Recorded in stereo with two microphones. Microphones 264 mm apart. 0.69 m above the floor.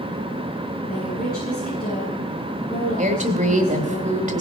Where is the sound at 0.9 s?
35° left (ahead or behind), 8 m.